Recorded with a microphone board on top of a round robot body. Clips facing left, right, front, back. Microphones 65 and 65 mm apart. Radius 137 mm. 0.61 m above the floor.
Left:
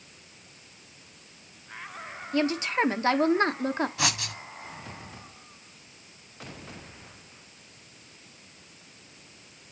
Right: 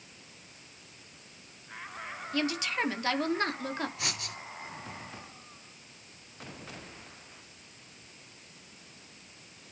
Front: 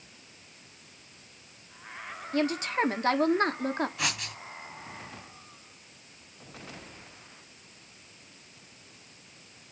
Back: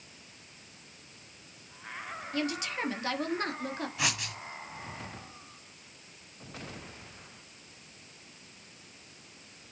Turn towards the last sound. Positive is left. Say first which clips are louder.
# left 8 dB, even
turn(degrees=90)